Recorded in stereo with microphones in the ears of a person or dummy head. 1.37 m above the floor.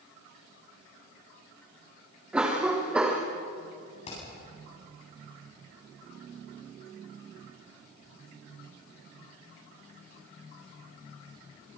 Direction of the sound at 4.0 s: 35° left (ahead or behind).